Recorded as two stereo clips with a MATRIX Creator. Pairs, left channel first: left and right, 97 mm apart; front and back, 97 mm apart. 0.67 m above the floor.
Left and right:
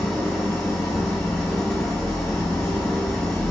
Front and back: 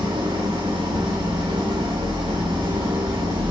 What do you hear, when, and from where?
0.0 s an engine running: 170° left, 1.0 m